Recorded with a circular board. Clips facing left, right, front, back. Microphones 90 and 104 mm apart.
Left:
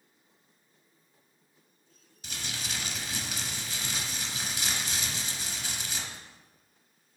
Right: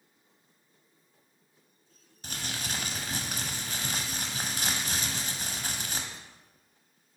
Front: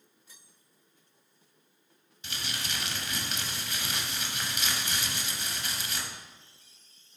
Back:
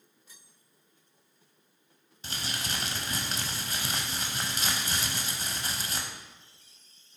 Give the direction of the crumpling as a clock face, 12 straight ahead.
4 o'clock.